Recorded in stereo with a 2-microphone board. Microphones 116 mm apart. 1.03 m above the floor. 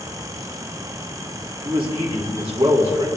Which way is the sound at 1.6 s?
50° right (ahead or behind).